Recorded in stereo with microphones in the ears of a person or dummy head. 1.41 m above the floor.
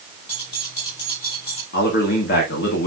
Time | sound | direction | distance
0.3 | keys jangling | 35° left (ahead or behind) | 5 m
1.7 | a man speaking | 60° left (ahead or behind) | 2 m